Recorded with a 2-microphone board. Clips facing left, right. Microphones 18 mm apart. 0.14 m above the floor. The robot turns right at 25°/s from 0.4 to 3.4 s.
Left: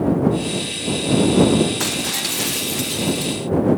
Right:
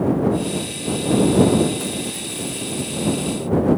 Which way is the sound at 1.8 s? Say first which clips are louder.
Left 5 dB; 70° left.